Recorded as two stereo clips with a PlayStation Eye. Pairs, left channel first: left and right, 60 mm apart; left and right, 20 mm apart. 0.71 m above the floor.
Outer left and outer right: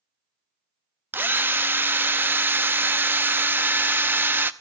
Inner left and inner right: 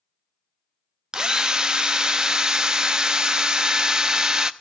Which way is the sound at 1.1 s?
35° right (ahead or behind).